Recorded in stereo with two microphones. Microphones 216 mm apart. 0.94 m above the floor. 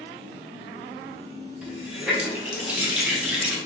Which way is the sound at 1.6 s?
5° right (ahead or behind).